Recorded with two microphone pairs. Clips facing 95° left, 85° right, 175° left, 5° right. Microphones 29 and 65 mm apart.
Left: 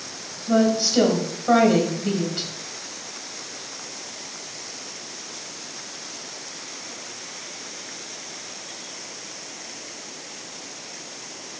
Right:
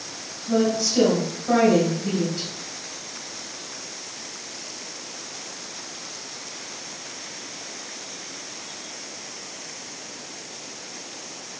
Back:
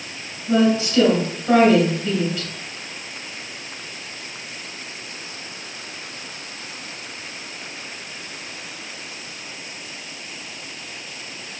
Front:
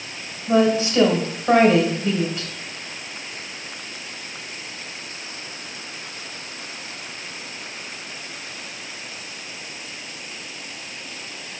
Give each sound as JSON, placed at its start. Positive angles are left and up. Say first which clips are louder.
{"t": 0.5, "sound": "a woman speaking", "louder": "left 2 dB, even", "azimuth_deg": 60, "distance_m": 2.0}